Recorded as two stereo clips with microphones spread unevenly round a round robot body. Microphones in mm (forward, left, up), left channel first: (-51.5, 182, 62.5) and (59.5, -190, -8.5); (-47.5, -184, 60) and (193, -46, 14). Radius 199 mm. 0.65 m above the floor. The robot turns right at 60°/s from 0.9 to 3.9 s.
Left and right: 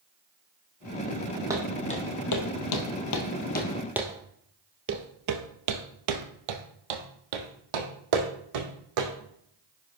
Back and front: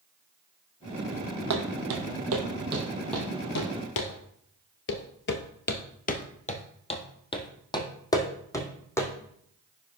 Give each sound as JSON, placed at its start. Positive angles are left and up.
{"t": 1.5, "sound": "footsteps", "azimuth_deg": 10, "distance_m": 1.9}